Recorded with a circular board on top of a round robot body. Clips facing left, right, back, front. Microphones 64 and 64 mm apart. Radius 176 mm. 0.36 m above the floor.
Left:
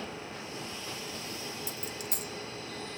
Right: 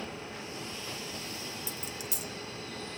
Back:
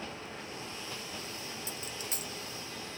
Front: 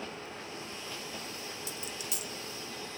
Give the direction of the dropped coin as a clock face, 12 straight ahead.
8 o'clock.